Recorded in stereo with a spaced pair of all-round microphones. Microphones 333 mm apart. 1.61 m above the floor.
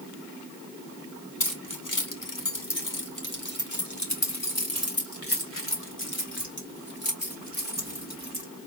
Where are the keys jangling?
60° left (ahead or behind), 1.5 m; by 8.4 s 25° left (ahead or behind), 3.5 m.